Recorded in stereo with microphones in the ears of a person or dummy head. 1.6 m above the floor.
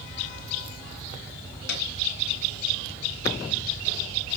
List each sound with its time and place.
1.7 s a piano: 65° left (ahead or behind), 3 m